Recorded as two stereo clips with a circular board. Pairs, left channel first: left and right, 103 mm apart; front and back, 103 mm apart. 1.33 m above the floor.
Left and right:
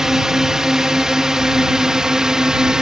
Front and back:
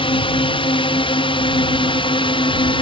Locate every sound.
0.0 s a drone: 5° right; by 2.8 s 10° right